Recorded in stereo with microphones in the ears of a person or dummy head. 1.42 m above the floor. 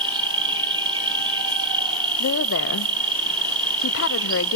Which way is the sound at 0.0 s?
25° right (ahead or behind).